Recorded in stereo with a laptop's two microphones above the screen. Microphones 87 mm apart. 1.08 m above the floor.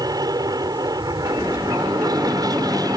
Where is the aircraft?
45° right (ahead or behind).